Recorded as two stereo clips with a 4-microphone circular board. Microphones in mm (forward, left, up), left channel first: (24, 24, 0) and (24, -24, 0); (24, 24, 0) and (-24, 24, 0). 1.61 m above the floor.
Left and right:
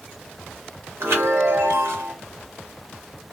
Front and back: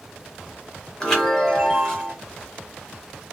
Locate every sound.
1.0 s a chime: 75° right, 1.2 m